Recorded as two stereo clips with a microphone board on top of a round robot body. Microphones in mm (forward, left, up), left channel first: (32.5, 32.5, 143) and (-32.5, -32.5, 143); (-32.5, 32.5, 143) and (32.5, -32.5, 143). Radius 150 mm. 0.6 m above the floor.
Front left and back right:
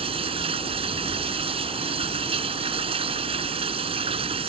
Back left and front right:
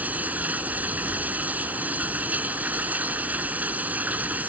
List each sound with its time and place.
0.0 s running water: 120° right